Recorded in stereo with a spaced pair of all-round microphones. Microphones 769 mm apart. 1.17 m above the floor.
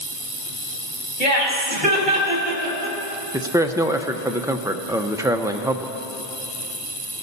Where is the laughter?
45° right (ahead or behind), 3.5 m.